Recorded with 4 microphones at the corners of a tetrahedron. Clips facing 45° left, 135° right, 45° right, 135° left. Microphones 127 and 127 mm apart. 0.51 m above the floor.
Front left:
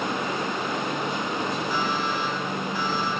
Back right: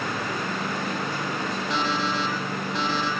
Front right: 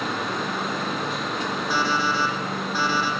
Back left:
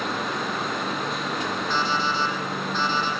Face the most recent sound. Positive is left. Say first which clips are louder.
# even, front right 2 dB
turn(degrees=-125)